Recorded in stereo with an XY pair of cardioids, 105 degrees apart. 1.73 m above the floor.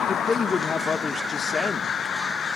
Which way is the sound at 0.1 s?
30° left.